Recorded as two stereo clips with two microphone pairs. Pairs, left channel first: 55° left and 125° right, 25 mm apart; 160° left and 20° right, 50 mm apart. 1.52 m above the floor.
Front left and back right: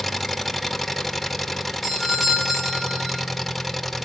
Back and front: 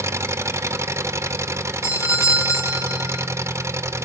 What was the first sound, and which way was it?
An engine running, 40° right.